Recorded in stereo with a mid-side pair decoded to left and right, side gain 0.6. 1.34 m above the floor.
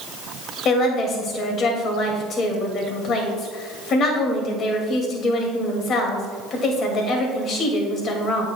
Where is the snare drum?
No snare drum in this recording.